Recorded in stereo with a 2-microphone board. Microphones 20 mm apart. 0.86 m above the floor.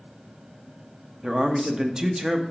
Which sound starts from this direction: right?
A man speaking, at 1.2 s.